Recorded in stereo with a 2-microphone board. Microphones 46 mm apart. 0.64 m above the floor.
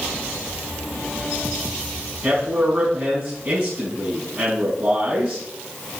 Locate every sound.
2.2 s a man speaking: 40° right (ahead or behind), 5 m